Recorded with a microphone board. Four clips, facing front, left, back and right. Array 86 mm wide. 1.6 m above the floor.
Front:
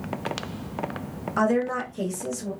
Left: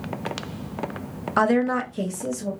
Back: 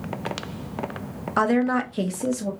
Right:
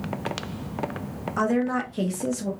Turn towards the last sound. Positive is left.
turn(degrees=-140)